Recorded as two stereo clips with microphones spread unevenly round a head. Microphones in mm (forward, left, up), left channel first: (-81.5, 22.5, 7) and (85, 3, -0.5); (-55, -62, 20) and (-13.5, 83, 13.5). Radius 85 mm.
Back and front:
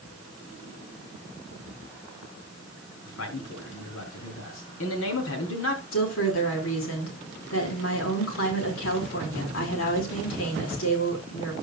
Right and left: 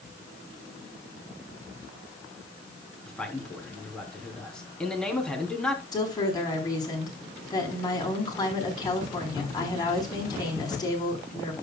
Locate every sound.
3.1 s a man speaking: 170° left, 3.5 m
5.9 s a woman speaking: 170° right, 5 m